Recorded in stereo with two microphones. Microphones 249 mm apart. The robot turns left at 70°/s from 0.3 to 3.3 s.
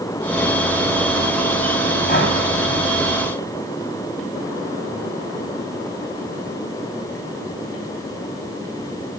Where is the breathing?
35° left (ahead or behind), 1.6 m; by 2.4 s 60° left (ahead or behind), 1.6 m.